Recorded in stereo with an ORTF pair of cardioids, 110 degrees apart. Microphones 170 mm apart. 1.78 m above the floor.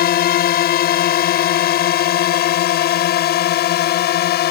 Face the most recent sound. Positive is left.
turn(degrees=70)